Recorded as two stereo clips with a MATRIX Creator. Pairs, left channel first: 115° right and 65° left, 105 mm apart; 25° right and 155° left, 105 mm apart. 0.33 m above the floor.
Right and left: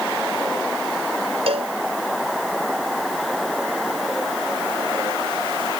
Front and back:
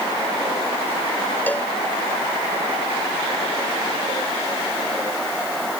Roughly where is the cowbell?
Ahead left.